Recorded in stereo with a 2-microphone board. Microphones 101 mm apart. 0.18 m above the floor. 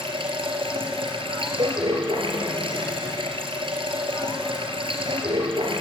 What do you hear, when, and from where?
0.0 s running water: 65° right (ahead or behind), 3.5 m
1.6 s a cowbell: 55° right (ahead or behind), 3 m